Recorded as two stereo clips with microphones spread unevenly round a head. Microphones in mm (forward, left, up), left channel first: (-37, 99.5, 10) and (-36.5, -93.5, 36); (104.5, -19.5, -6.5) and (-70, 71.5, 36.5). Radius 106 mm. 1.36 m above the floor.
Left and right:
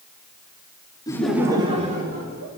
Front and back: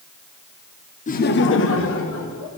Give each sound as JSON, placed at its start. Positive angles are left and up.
{"t": 1.1, "sound": "laughter", "azimuth_deg": 20, "distance_m": 0.9}